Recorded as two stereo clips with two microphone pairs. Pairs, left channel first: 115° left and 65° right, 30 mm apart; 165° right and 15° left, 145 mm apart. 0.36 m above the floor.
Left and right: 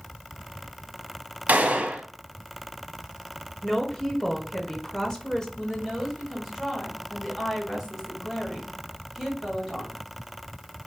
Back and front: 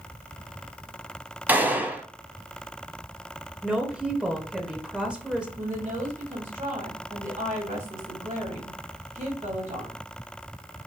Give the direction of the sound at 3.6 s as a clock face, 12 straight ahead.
9 o'clock.